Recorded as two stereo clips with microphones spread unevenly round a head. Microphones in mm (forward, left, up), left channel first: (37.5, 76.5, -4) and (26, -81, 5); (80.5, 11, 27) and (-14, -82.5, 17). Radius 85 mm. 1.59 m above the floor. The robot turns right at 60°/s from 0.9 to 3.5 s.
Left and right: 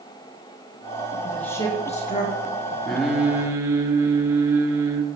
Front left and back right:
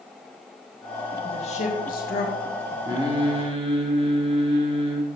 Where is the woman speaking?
5° right, 2.0 m; by 2.8 s 85° left, 2.0 m.